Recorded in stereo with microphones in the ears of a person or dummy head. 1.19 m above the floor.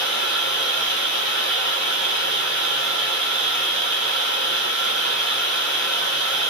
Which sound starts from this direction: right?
Running water, at 0.0 s.